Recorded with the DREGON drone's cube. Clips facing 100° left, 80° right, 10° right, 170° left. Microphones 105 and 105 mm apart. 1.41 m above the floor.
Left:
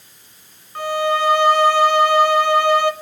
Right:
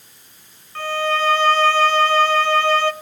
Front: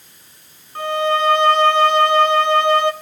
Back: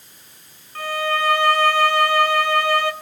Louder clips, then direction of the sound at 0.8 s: Left 2 dB, front 5 dB; 35° left.